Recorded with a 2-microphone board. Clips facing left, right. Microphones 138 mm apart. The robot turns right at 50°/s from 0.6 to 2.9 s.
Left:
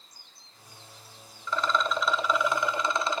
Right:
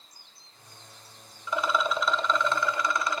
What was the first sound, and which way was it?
A rattle, 30° right.